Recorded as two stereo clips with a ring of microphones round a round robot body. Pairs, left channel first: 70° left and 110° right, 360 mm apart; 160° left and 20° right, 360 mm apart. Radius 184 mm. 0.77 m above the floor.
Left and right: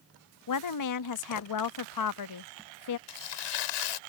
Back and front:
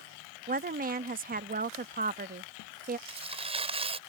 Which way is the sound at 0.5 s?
40° left.